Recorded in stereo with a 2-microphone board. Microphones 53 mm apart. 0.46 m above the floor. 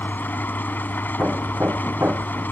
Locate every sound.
0.0 s an engine running: 40° left (ahead or behind)
1.2 s hammering: 50° right (ahead or behind)